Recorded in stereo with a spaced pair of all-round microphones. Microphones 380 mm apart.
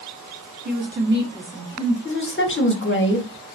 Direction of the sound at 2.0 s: 30° left (ahead or behind).